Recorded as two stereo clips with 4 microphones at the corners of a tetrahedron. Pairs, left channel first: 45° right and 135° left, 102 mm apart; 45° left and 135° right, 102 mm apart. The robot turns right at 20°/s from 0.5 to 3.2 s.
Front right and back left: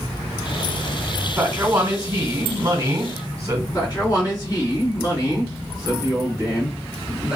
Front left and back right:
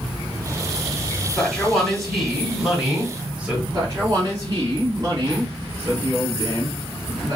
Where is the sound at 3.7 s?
85° right, 2.0 m.